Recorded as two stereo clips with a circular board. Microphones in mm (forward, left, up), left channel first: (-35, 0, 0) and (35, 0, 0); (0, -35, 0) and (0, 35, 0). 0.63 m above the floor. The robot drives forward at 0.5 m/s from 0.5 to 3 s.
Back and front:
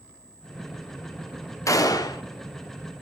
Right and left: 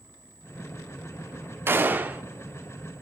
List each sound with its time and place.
1.7 s a gunshot: 145° left, 0.5 m; by 2.2 s 160° left, 0.7 m